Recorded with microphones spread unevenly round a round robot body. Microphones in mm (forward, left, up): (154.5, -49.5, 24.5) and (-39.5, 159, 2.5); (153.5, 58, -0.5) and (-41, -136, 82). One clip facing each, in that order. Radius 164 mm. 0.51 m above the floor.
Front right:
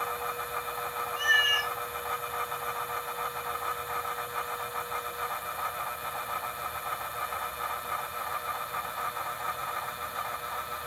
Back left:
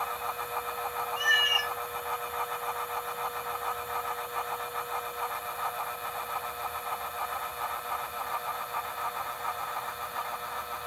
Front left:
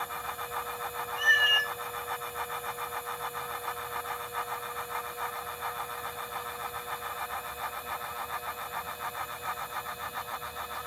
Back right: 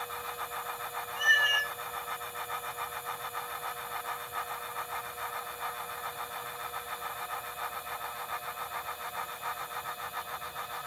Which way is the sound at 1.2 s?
115° left.